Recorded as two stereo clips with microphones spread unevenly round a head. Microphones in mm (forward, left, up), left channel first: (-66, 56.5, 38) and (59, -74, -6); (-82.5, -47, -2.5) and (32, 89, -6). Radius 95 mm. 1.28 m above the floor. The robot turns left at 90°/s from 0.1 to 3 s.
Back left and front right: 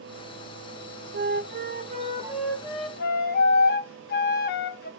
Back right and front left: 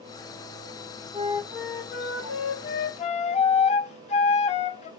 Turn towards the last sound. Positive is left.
turn(degrees=175)